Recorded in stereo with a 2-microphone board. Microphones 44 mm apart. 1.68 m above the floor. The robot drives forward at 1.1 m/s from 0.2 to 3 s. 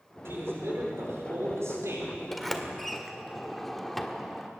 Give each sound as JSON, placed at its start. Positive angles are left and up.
{"t": 0.2, "sound": "a man speaking", "side_deg": -65, "distance_m": 6.5}
{"t": 2.3, "sound": "a sliding door", "side_deg": 0, "distance_m": 2.0}